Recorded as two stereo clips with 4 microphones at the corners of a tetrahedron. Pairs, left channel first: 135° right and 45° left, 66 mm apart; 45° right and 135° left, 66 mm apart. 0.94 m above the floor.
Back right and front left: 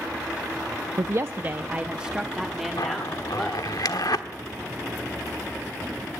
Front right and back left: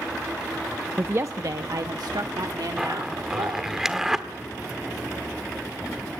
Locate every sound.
1.0 s a woman speaking: 75° left, 0.6 m; by 3.8 s 140° left, 2 m
2.8 s a zipper: 140° right, 1.3 m